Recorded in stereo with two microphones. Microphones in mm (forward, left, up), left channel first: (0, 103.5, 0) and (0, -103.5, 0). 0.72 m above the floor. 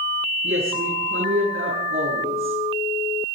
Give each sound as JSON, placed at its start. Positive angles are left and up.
{"t": 0.4, "sound": "a woman speaking", "side_deg": -80, "distance_m": 9.0}